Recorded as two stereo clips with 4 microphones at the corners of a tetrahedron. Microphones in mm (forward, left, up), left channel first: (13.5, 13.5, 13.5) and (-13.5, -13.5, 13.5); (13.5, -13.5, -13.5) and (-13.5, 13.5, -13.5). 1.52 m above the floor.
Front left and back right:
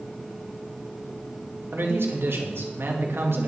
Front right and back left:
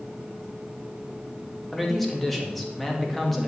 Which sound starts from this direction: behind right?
A man speaking, at 1.7 s.